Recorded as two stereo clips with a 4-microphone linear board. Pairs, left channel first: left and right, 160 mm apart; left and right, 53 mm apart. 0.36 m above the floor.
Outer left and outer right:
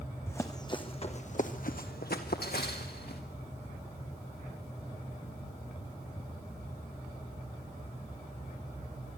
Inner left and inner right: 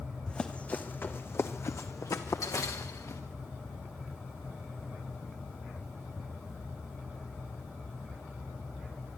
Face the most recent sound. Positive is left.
turn(degrees=80)